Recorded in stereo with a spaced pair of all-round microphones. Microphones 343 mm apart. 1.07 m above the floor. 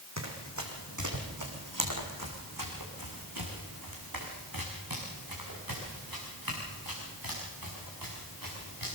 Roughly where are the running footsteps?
Right.